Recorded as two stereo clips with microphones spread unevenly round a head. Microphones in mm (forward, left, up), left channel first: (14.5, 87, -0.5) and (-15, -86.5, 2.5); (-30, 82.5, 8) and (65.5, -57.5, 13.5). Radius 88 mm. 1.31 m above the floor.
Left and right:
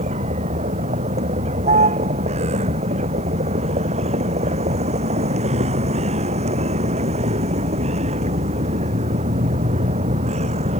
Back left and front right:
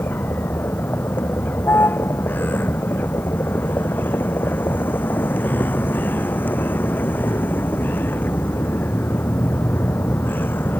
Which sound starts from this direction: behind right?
A vehicle, at 0.0 s.